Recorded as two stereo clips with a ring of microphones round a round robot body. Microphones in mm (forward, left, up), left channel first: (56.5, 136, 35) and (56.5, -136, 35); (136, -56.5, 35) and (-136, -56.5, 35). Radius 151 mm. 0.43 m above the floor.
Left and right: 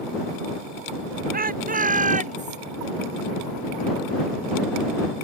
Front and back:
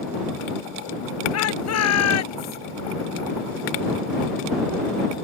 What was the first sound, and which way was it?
A shout, 30° right.